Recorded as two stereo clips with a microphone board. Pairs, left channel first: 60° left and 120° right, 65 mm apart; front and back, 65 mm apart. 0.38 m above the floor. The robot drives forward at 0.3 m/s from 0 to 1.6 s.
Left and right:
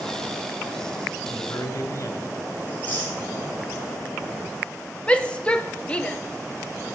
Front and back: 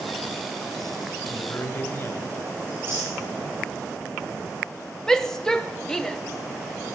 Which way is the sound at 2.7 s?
125° left.